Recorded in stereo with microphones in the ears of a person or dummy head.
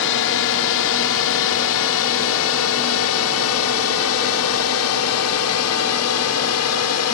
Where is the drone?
65° left (ahead or behind); by 7.2 s 75° left (ahead or behind).